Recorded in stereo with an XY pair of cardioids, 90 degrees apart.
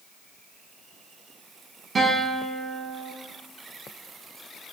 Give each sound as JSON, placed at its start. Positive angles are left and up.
{"t": 1.9, "sound": "a guitar", "azimuth_deg": -40, "distance_m": 4.5}